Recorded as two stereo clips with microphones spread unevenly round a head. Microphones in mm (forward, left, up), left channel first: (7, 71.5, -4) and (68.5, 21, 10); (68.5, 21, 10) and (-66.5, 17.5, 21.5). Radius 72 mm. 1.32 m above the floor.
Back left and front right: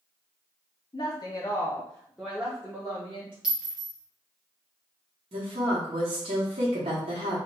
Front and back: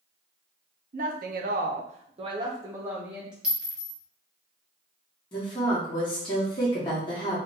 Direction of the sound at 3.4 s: 105° right.